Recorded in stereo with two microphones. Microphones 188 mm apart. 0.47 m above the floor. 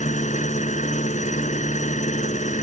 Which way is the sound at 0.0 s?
45° left (ahead or behind).